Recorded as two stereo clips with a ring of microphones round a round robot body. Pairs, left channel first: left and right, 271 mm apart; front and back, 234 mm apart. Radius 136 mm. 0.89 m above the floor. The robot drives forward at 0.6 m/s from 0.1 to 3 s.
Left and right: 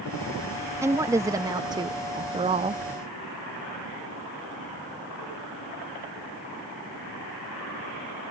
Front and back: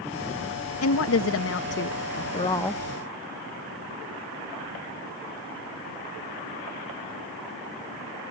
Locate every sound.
0.8 s a woman speaking: 10° right; by 2.8 s 95° right